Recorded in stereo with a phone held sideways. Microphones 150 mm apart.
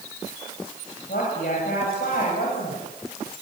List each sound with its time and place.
1.1 s a woman speaking: 80° left, 8 m